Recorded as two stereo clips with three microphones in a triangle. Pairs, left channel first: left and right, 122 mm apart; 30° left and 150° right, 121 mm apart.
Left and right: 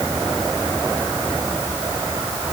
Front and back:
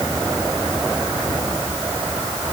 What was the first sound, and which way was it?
Only background noise.